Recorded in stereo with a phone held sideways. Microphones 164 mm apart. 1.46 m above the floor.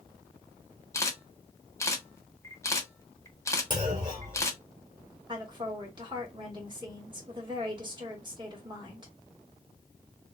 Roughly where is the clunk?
Right.